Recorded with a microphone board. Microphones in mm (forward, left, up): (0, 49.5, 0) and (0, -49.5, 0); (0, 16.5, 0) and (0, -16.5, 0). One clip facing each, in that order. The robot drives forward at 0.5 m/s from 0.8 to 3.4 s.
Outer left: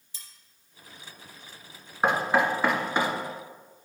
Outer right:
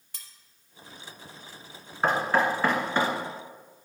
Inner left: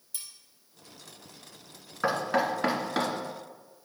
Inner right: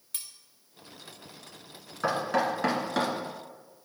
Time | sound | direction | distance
0.1 | cutlery clinking | 70° right (ahead or behind) | 1.4 m
2.0 | knocking | 15° left (ahead or behind) | 2.0 m